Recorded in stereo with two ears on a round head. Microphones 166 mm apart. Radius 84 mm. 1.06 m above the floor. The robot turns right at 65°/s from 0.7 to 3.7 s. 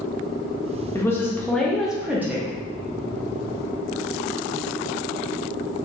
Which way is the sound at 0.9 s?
15° left (ahead or behind).